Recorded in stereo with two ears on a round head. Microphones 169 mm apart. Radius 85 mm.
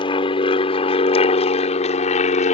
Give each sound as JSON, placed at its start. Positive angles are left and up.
{"t": 0.0, "sound": "an aircraft", "side_deg": 30}